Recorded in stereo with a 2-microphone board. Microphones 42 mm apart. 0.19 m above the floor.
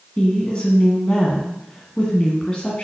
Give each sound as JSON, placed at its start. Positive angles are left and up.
{"t": 0.2, "sound": "a woman speaking", "side_deg": 25, "distance_m": 1.8}